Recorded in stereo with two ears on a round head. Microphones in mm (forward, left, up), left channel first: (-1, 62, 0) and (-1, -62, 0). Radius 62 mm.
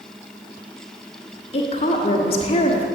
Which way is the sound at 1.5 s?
40° left (ahead or behind).